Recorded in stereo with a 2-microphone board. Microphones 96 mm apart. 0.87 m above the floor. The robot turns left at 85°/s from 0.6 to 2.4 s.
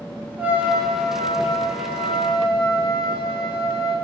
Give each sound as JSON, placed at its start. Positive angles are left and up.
{"t": 0.4, "sound": "a trumpet", "azimuth_deg": -165, "distance_m": 1.0}